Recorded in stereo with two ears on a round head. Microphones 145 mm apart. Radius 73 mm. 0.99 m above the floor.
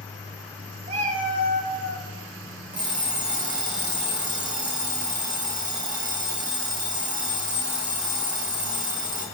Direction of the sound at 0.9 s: 40° right (ahead or behind).